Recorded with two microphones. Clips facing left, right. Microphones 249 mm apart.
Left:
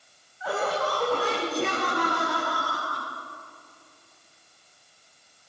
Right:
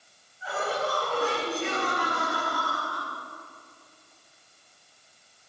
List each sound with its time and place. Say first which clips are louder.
0.4 s laughter: left 3 dB; 80° left, 8 m